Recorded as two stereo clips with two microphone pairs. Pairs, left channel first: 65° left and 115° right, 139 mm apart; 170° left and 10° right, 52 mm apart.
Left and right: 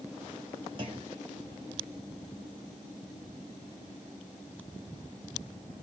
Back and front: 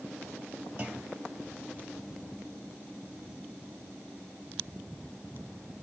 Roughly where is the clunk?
Ahead right.